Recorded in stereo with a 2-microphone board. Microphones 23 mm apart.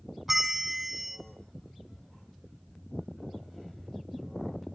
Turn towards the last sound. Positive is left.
turn(degrees=-5)  # may be behind; listen again after turning